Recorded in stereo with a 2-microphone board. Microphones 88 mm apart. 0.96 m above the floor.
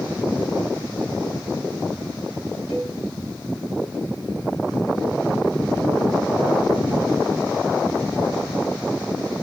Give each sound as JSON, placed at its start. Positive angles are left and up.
{"t": 2.7, "sound": "a cowbell", "side_deg": 80, "distance_m": 8.0}